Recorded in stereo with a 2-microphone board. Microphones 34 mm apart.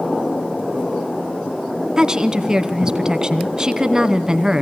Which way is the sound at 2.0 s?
20° right (ahead or behind).